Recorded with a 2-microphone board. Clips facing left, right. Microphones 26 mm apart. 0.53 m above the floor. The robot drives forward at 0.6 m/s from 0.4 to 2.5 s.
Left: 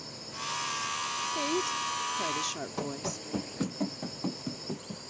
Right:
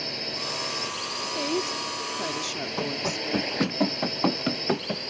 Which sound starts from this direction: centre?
A woman speaking, at 1.4 s.